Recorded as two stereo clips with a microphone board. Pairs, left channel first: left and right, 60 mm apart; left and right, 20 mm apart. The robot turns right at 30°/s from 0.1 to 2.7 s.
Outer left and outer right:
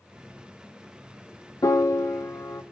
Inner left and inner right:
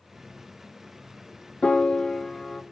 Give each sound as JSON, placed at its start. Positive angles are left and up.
{"t": 1.6, "sound": "a piano", "azimuth_deg": 105, "distance_m": 0.7}